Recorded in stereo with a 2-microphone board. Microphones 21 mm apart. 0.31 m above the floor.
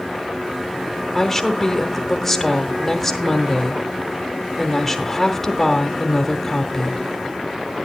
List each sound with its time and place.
1.1 s a woman speaking: 20° left (ahead or behind), 1.1 m